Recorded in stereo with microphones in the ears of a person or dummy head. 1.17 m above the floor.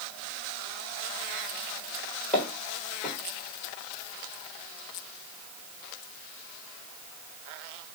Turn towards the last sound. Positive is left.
turn(degrees=0)  # may be behind; listen again after turning